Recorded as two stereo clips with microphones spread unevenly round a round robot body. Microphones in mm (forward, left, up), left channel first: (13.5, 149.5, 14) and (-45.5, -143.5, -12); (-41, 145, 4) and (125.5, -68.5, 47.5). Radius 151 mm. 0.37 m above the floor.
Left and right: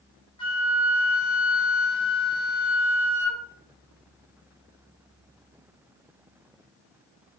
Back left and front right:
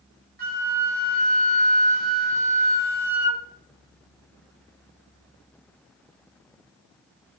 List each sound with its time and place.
0.4 s a flute: 5° left, 2.5 m